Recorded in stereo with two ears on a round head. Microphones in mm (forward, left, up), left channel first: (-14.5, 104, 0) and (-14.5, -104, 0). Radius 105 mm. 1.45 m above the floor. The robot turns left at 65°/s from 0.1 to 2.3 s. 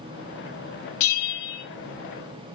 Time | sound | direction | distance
1.0 | a bell | 115° left | 0.8 m